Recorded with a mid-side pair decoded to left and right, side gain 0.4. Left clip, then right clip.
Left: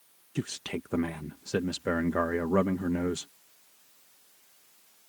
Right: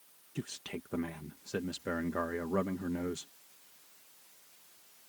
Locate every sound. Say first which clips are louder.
0.3 s a man speaking: left 7 dB; 55° left